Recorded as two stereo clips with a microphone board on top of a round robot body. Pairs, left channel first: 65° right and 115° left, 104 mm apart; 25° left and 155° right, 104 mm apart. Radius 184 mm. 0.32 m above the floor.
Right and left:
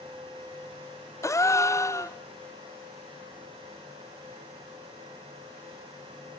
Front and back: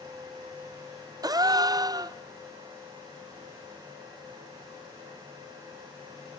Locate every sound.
1.2 s a gasp: 120° right, 0.7 m